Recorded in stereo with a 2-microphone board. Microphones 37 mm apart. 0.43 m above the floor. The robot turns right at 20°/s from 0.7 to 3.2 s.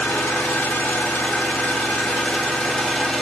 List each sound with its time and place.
0.0 s an engine running: 115° left, 0.8 m; by 3.2 s 165° left, 0.8 m